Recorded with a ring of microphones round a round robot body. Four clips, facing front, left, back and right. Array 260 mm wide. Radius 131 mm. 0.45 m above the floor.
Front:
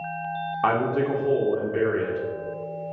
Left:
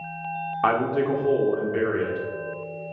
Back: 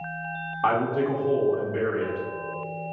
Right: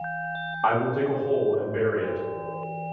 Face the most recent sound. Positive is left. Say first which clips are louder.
# left 1 dB, even
turn(degrees=60)